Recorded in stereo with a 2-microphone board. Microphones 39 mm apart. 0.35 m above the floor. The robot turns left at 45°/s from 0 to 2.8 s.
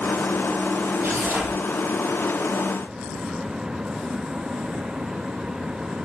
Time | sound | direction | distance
1.0 | tearing paper | 75° right (ahead or behind) | 7 m